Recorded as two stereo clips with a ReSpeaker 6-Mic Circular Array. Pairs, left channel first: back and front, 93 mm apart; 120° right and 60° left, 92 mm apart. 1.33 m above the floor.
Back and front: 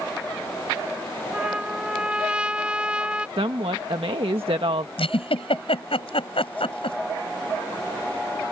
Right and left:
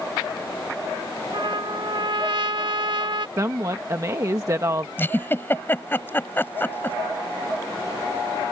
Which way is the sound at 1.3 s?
75° left.